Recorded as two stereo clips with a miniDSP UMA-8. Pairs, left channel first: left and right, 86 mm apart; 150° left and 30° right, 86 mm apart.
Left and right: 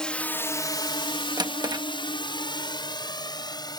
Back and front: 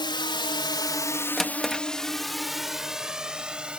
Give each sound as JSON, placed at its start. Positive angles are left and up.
{"t": 0.0, "sound": "a drone", "azimuth_deg": 170}
{"t": 1.4, "sound": "a drawer", "azimuth_deg": -120}